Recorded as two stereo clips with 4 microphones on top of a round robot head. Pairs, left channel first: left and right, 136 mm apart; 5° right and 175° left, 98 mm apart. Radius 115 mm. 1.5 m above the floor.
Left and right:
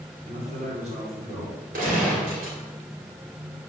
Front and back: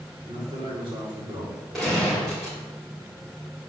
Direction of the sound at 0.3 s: 125° right.